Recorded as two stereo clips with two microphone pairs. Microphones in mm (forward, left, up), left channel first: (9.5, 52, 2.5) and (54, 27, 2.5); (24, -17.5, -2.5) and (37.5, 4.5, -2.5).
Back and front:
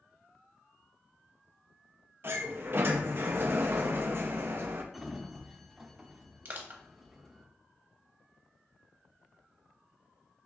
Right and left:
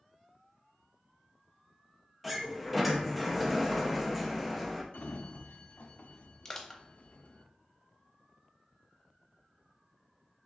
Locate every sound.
2.2 s a sliding door: 20° right, 0.6 m
4.9 s a sliding door: 115° right, 0.5 m
6.5 s crushing: 55° right, 0.7 m